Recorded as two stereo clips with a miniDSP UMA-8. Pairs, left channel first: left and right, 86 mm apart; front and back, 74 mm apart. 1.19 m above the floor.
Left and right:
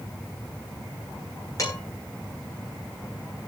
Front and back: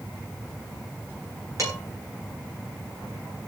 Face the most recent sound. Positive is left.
turn(degrees=135)